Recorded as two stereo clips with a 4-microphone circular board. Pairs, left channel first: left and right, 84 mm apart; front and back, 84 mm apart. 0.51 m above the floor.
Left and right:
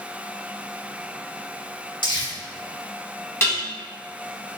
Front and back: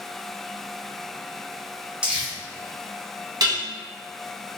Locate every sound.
2.0 s crumpling: 100° left, 1.1 m
3.4 s dishes clattering: 150° left, 1.2 m